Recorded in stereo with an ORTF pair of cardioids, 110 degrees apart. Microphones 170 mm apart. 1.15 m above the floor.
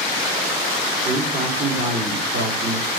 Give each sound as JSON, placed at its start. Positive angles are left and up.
{"t": 1.1, "sound": "a man speaking", "azimuth_deg": -55, "distance_m": 3.0}